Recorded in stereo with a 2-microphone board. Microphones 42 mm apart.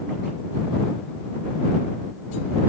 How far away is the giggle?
No giggle in this recording.